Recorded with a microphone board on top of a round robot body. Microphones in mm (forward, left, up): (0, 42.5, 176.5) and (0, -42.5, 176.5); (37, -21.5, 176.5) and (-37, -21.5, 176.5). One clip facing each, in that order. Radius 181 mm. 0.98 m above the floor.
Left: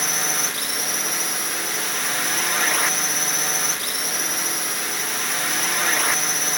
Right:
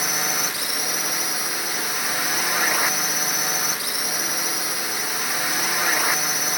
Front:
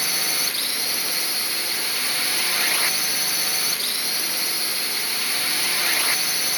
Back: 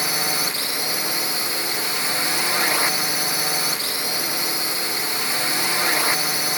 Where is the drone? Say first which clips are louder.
Even, back 4 dB; 170° right.